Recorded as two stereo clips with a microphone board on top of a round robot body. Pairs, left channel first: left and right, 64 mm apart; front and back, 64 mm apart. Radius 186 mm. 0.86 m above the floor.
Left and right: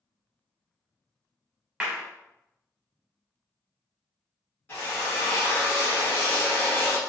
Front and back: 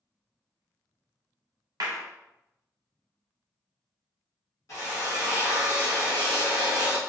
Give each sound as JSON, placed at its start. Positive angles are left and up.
{"t": 1.8, "sound": "a clap", "azimuth_deg": -165, "distance_m": 0.7}
{"t": 4.7, "sound": "a drill", "azimuth_deg": 30, "distance_m": 1.5}